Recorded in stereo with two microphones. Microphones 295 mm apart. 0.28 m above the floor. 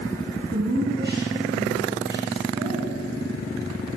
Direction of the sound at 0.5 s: 35° right (ahead or behind).